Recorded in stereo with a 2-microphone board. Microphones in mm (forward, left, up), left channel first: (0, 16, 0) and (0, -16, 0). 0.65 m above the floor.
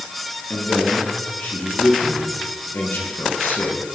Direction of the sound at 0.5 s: 80° left.